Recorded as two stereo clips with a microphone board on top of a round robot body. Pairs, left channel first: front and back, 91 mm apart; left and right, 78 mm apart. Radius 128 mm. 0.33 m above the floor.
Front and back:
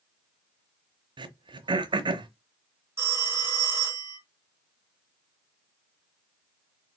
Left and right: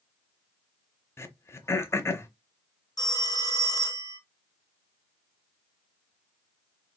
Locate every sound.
1.2 s throat clearing: 145° left, 0.8 m
3.0 s a phone ringing: 120° left, 1.3 m